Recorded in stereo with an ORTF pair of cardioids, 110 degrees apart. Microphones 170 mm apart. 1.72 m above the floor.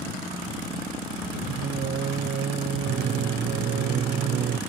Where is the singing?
55° right.